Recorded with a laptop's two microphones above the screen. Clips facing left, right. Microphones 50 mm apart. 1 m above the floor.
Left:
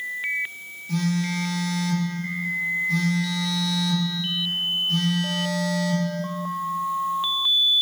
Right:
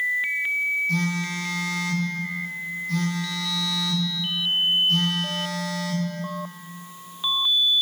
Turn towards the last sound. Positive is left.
turn(degrees=5)  # may be behind; listen again after turning